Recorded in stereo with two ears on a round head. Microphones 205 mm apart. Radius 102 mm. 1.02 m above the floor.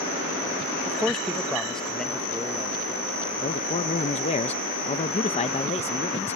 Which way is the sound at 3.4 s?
25° left (ahead or behind).